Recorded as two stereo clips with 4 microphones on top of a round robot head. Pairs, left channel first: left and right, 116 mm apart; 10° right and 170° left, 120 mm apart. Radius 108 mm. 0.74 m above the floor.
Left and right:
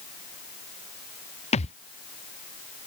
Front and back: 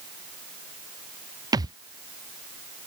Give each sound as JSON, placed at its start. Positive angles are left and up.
{"t": 1.5, "sound": "a thud", "azimuth_deg": 115}